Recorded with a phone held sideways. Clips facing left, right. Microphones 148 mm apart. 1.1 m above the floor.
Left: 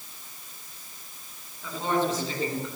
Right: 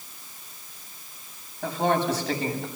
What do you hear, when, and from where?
1.6 s a man speaking: 75° right (ahead or behind), 9.5 m